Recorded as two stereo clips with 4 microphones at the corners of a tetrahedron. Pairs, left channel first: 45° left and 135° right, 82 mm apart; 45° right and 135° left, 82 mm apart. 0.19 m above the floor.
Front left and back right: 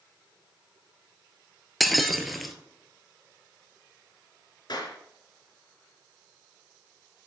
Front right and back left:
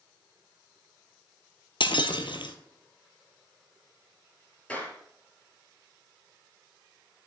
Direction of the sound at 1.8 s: 45° right.